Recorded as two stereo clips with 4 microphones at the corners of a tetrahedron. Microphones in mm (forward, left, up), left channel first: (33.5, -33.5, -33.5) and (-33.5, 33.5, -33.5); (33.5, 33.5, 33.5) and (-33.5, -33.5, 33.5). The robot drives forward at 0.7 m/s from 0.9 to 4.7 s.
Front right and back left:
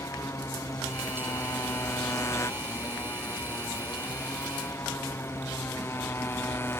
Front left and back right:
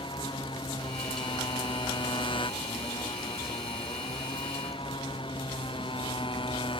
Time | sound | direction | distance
0.0 | a motorcycle | 10° left | ?